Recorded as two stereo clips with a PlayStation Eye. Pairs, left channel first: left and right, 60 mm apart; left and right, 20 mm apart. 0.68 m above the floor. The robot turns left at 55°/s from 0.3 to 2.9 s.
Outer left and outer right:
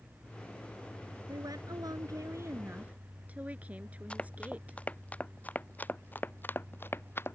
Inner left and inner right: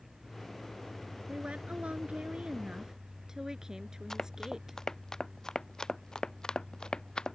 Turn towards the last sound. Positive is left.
turn(degrees=40)  # may be behind; listen again after turning